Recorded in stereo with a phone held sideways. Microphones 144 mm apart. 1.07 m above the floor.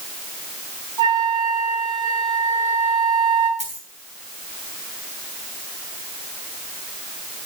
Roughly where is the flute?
Right.